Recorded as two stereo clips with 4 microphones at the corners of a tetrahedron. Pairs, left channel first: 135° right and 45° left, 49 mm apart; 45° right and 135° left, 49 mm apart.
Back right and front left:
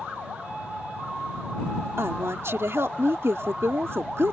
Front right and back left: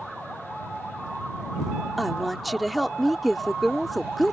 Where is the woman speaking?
45° left.